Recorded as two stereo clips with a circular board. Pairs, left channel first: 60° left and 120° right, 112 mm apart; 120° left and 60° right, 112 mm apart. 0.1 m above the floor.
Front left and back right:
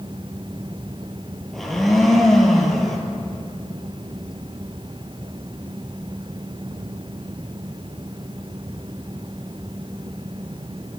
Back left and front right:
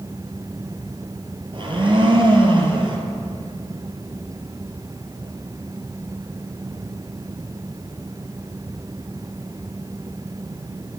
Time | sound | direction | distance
1.5 | a blender | 30° right | 1.0 m